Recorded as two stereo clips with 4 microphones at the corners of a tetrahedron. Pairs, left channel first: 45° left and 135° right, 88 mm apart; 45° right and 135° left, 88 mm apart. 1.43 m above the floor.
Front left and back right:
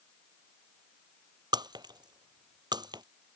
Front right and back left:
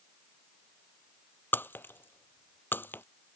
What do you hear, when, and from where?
1.5 s breaking glass: 110° right